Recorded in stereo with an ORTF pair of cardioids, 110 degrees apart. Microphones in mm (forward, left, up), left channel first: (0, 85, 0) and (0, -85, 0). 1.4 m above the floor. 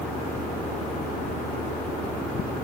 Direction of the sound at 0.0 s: 50° left.